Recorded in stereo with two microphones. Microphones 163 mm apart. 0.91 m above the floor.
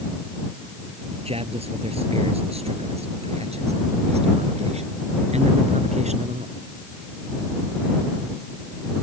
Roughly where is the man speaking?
Right.